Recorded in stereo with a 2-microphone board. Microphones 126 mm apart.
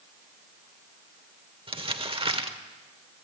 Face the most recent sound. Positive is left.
turn(degrees=-45)  # may be behind; listen again after turning